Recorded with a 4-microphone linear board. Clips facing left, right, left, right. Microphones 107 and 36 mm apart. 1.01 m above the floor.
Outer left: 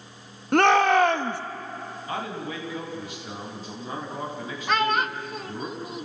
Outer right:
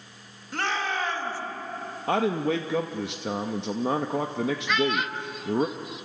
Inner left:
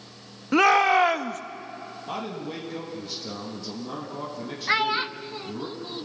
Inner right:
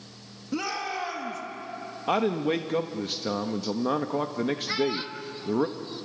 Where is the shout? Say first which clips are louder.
Outer left 11 dB, inner left 13 dB; 60° left (ahead or behind), 1.1 m.